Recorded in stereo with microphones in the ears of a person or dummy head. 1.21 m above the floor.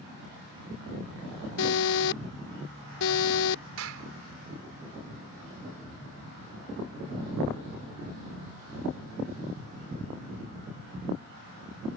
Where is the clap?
80° right.